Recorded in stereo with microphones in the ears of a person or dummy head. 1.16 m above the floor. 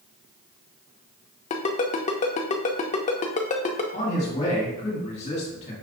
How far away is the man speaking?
About 2 m.